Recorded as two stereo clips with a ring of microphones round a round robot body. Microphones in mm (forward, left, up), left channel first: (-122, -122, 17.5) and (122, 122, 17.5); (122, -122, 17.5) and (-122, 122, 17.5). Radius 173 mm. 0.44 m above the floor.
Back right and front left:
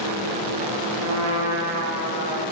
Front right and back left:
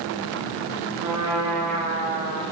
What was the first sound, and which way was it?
A trumpet, 90° left.